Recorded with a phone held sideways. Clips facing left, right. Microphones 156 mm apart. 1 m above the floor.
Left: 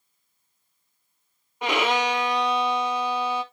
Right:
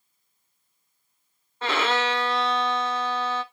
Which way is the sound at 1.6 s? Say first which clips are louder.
Left 1 dB; 15° left (ahead or behind).